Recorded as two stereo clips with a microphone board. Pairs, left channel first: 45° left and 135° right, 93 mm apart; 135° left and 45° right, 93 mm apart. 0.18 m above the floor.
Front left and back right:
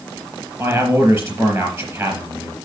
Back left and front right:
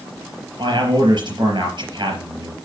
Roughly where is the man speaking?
Right.